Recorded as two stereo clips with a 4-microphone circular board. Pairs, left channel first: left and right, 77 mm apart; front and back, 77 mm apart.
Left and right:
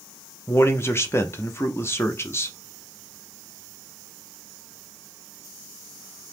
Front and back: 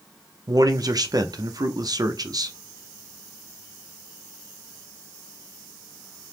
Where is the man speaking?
145° left, 0.5 m.